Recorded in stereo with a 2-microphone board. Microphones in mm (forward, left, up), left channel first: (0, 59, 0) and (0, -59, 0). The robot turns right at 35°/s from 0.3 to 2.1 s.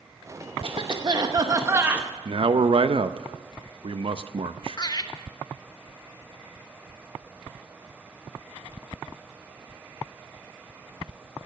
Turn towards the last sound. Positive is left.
turn(degrees=35)  # may be behind; listen again after turning